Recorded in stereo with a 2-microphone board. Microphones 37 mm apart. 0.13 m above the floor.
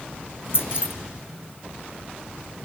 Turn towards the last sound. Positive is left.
turn(degrees=70)  # may be behind; listen again after turning